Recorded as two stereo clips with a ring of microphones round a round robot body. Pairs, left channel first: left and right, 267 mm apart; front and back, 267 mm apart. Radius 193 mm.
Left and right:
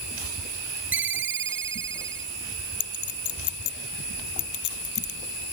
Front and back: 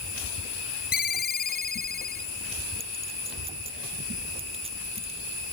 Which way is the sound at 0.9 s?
50° right.